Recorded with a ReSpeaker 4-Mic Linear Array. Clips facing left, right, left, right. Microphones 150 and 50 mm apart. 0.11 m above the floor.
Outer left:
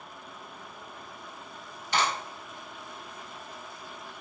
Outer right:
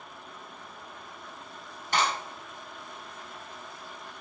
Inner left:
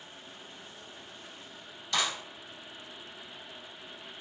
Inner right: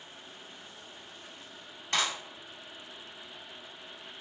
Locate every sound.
1.9 s a clap: 45° right (ahead or behind), 1.7 m